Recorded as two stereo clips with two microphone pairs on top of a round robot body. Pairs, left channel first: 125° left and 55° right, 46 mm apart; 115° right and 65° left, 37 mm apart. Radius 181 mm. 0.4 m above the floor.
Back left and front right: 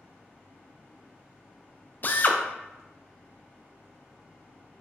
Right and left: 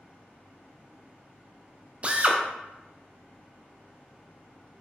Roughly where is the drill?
Behind left.